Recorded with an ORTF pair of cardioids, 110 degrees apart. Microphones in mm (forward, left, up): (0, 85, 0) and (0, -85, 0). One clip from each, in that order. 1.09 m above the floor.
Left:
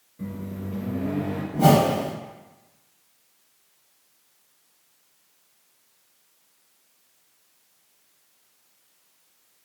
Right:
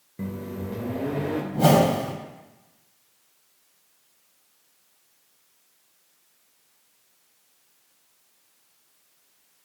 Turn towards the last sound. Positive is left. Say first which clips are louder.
# left 1 dB
turn(degrees=-10)